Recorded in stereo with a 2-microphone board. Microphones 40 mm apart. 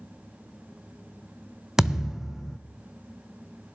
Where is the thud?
15° right (ahead or behind), 0.6 m.